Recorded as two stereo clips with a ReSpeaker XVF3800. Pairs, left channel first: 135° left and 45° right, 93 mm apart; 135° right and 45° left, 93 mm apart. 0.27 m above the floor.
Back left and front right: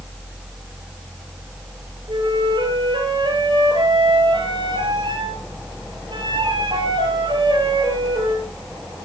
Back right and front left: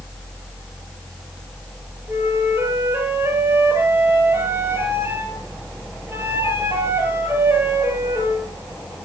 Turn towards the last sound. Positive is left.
turn(degrees=-15)